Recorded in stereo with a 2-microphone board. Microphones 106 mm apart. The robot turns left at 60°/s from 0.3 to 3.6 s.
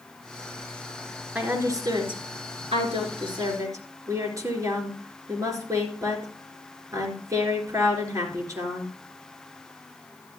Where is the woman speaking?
10° right, 3.5 m; by 8.9 s 145° right, 3.5 m.